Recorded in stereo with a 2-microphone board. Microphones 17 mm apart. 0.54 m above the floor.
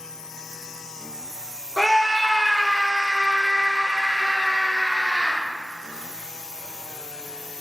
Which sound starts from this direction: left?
A scream, at 1.8 s.